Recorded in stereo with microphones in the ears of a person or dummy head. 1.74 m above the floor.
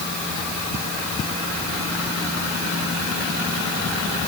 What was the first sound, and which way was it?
Only background noise.